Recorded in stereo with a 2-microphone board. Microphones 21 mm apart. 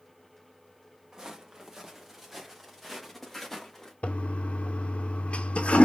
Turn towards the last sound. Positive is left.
turn(degrees=75)  # may be behind; listen again after turning